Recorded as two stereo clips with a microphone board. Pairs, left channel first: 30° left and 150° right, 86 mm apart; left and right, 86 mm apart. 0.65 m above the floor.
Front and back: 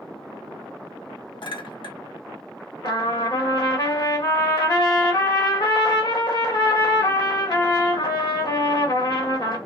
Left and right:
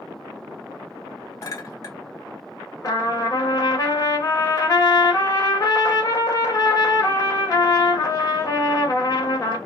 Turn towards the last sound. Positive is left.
turn(degrees=50)